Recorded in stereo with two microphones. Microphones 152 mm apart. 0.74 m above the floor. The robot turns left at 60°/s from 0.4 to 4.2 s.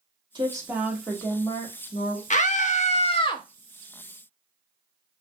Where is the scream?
100° left, 0.8 m; by 3.4 s 30° left, 0.8 m.